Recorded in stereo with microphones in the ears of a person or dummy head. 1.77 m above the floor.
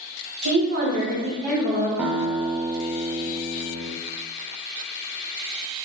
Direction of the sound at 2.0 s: Centre (ahead or behind).